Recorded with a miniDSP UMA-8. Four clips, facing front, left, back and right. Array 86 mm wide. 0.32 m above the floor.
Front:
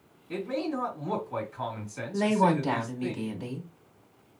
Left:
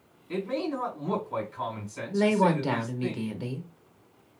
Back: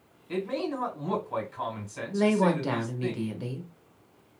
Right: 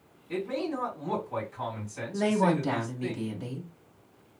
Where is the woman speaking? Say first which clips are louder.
Left 2 dB, even; 120° left, 0.8 m.